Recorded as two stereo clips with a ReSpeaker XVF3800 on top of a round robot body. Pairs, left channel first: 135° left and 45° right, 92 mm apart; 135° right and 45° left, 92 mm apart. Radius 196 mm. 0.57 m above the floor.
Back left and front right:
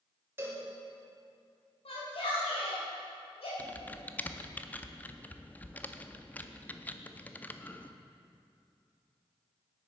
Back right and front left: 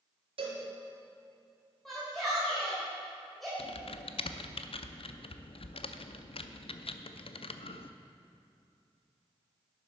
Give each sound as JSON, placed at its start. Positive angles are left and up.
{"t": 0.4, "sound": "a cowbell", "azimuth_deg": 20, "distance_m": 2.5}
{"t": 1.9, "sound": "a shout", "azimuth_deg": 135, "distance_m": 3.5}
{"t": 3.6, "sound": "typing on a keyboard", "azimuth_deg": -150, "distance_m": 0.6}